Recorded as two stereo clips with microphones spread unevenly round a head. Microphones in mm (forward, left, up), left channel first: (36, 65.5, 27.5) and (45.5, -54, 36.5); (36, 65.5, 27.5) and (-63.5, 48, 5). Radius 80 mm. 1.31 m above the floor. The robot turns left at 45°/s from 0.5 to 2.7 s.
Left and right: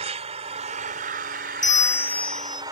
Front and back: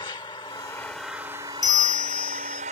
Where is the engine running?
55° right; by 2.7 s 150° right.